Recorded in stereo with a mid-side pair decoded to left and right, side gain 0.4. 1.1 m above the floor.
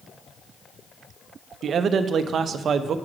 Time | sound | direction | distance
1.6 | a man speaking | 65° right | 0.7 m